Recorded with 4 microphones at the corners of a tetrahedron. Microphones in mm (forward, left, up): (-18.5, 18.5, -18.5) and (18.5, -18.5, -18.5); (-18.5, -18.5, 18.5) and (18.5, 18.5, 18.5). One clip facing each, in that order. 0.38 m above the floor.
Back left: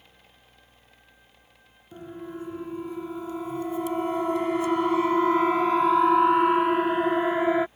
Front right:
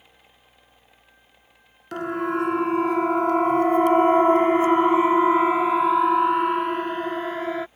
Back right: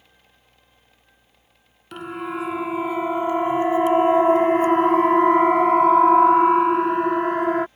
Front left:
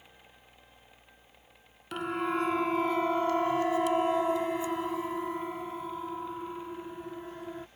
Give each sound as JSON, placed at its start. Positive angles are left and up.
{"t": 1.9, "sound": "a siren", "azimuth_deg": -45}